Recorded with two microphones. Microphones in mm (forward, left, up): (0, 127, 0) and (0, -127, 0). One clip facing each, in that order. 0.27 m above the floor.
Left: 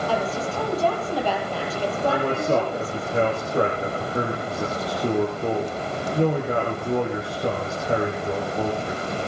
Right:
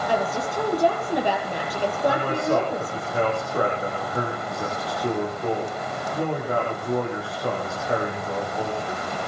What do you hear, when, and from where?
0.1 s a woman speaking: 15° right (ahead or behind), 7 m
2.1 s a man speaking: 20° left (ahead or behind), 7 m